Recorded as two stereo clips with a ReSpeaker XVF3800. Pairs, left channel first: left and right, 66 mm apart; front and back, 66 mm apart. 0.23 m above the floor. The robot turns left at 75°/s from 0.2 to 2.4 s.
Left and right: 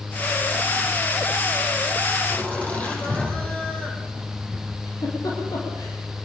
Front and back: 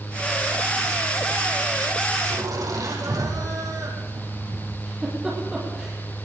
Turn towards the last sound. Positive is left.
turn(degrees=105)